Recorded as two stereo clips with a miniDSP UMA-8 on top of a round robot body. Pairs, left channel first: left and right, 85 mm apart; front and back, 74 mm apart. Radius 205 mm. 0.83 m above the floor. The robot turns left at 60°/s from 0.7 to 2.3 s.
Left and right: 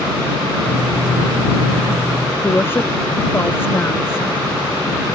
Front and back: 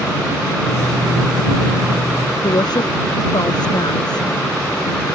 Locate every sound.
2.4 s a woman speaking: 25° left